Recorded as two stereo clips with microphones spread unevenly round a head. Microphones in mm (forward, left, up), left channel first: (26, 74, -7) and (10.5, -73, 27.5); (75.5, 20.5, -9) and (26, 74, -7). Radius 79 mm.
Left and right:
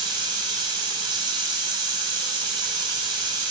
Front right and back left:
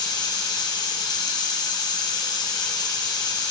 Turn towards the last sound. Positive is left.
turn(degrees=-30)